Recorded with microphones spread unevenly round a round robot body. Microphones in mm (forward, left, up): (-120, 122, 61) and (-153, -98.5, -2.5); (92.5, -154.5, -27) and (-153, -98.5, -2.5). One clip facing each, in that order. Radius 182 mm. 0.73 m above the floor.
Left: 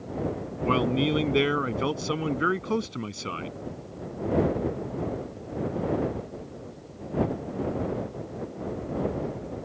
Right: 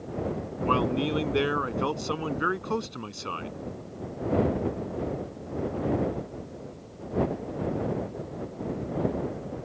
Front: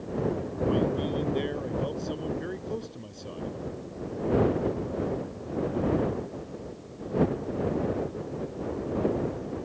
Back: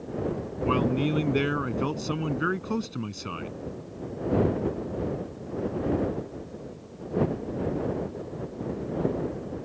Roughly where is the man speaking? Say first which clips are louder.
Left 2 dB, back 2 dB; behind left.